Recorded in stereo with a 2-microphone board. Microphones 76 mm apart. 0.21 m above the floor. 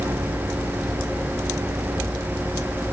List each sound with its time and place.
Only background noise.